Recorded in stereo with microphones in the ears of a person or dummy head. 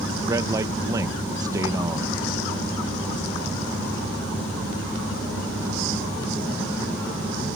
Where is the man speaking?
20° right (ahead or behind).